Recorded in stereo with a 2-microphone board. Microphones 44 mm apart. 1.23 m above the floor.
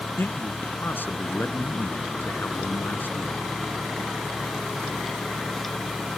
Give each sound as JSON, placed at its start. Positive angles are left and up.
{"t": 0.2, "sound": "a man speaking", "side_deg": 50}